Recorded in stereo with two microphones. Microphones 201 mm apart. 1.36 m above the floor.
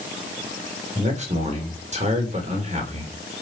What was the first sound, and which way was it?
A man speaking, 35° right (ahead or behind).